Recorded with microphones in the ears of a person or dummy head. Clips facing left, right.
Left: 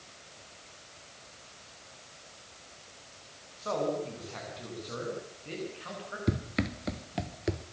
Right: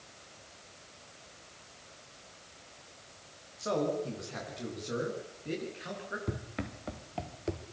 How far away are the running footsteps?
About 1.2 m.